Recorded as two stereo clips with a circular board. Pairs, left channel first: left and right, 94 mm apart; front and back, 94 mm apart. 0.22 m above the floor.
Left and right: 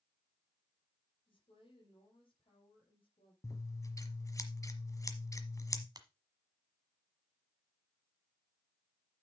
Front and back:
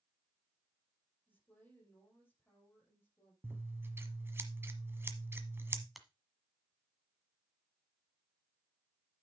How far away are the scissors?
About 1.2 m.